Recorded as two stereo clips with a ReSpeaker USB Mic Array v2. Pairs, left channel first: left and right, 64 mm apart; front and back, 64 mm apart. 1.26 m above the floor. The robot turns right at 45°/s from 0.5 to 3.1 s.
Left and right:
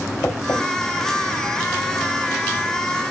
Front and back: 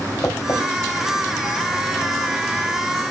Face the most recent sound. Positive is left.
turn(degrees=165)